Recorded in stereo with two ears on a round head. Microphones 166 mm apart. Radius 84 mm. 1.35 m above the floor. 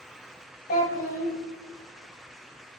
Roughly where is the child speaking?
Left.